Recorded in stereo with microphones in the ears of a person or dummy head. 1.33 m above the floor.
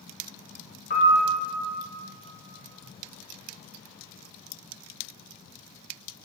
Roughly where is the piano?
Left.